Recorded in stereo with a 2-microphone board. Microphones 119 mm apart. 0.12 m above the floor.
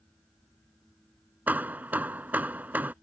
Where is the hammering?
15° right (ahead or behind).